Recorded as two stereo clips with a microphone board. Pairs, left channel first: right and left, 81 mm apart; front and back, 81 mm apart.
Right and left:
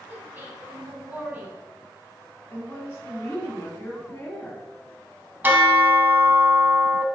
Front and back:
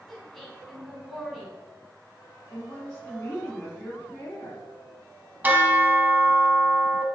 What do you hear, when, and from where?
0.1 s a woman speaking: 85° left, 1.0 m
2.5 s a woman speaking: 55° right, 1.9 m
5.4 s a bell: 135° left, 0.6 m